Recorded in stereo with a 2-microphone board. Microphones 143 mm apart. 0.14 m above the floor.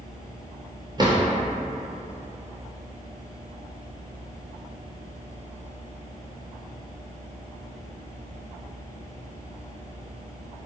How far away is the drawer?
About 0.7 m.